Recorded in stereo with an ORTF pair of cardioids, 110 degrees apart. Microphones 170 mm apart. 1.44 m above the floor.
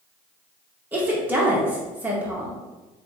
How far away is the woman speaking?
About 1.6 m.